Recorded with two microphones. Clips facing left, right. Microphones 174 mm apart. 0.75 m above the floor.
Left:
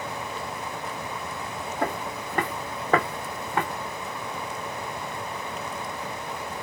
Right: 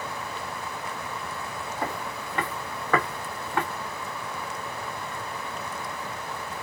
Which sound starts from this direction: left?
Footsteps, at 1.8 s.